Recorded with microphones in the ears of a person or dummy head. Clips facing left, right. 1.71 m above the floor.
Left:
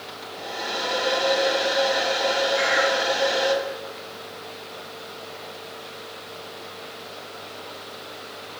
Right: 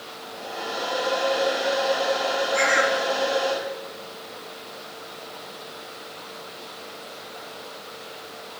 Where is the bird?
60° right (ahead or behind), 2.5 m.